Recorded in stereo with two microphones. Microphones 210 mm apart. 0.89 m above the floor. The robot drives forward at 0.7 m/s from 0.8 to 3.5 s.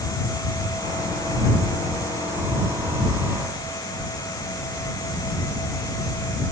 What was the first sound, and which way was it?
Only background noise.